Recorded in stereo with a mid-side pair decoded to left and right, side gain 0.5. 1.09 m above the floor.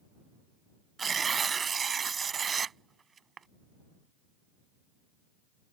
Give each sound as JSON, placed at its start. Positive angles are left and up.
{"t": 1.0, "sound": "tearing paper", "azimuth_deg": -40}